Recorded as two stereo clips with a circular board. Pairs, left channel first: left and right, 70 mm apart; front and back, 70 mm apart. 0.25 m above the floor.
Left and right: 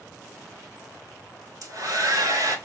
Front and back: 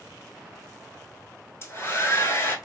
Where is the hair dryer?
55° right, 0.7 m.